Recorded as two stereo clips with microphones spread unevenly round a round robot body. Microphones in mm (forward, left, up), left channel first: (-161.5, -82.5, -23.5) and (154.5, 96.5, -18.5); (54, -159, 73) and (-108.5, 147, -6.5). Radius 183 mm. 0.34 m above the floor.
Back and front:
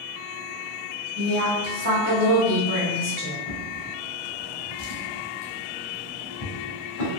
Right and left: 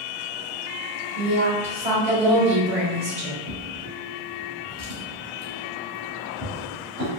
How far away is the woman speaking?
About 1.7 m.